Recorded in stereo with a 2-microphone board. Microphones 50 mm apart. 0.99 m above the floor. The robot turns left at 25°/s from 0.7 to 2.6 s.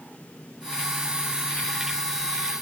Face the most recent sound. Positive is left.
No sound to turn to.